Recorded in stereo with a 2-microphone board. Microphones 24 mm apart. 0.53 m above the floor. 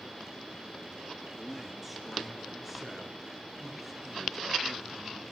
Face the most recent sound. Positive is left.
turn(degrees=-15)  # may be behind; listen again after turning